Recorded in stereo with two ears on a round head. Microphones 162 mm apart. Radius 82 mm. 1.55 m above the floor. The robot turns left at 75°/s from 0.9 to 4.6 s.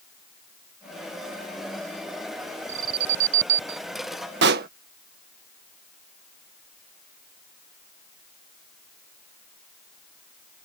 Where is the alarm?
35° right (ahead or behind); by 3.8 s 60° right (ahead or behind).